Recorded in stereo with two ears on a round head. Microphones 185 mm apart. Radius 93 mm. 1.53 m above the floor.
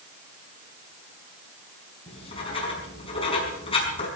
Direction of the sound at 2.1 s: 25° left (ahead or behind).